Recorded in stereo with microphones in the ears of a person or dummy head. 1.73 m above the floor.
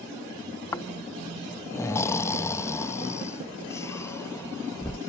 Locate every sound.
0.7 s snoring: 10° left (ahead or behind)